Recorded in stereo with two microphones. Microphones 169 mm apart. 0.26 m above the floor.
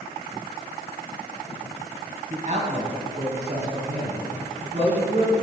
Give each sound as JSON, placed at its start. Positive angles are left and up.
{"t": 2.3, "sound": "a man speaking", "side_deg": -45, "distance_m": 2.0}